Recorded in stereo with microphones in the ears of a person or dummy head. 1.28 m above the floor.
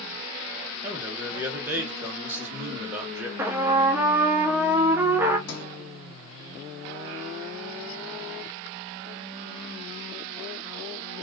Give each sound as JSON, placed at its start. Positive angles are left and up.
{"t": 0.8, "sound": "a man speaking", "side_deg": -10, "distance_m": 1.2}
{"t": 3.4, "sound": "a trumpet", "side_deg": -10, "distance_m": 0.8}
{"t": 5.5, "sound": "a sliding door", "side_deg": 65, "distance_m": 1.5}